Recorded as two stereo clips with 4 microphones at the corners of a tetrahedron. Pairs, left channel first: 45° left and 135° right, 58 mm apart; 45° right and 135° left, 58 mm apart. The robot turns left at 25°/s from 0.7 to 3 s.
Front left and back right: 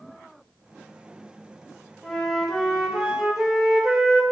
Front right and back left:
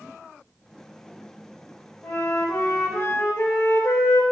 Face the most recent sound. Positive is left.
turn(degrees=-60)